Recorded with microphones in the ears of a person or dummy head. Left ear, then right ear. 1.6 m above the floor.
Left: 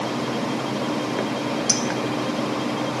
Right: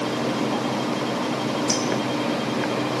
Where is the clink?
40° left (ahead or behind), 1.8 m.